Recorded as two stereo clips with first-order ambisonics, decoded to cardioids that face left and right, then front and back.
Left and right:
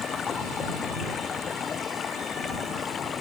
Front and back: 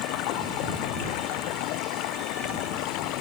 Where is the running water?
25° left.